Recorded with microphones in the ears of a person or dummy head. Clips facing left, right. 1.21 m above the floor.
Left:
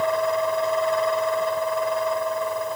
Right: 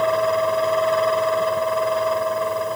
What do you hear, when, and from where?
0.0 s a fan: 55° right (ahead or behind)